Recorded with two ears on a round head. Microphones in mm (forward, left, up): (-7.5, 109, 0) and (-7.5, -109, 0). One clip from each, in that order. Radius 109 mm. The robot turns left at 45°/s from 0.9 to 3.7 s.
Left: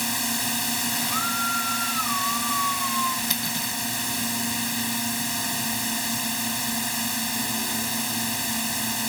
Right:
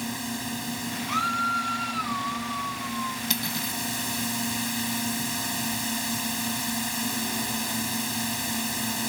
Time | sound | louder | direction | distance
0.0 | a drone | left 6 dB | 135° left | ?
1.1 | a scream | right 3 dB | 150° right | ?
3.3 | cutlery clinking | left 2 dB | 5° right (ahead or behind) | ?